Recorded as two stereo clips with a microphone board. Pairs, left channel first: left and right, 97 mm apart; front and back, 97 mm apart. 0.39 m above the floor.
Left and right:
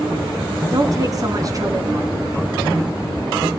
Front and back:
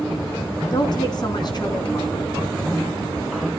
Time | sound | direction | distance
0.7 | a woman speaking | 40° right | 3.5 m